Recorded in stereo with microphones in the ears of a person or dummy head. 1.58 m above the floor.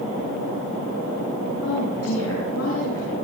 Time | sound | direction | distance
1.6 | a woman speaking | 85° left | 8 m